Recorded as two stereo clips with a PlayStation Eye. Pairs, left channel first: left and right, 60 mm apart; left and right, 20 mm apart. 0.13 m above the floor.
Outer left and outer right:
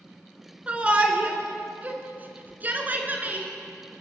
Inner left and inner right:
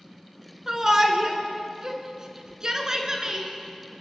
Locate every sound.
0.7 s a shout: 20° right (ahead or behind), 1.8 m; by 3.5 s 30° right (ahead or behind), 2 m